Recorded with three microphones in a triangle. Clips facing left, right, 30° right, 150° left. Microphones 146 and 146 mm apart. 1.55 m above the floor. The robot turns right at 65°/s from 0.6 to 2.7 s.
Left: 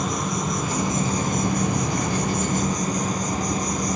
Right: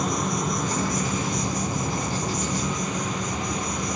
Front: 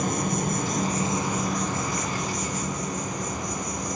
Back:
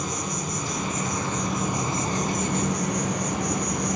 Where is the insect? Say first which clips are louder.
Even, front 4 dB; straight ahead, 1.4 m; by 4.0 s 135° left, 1.4 m.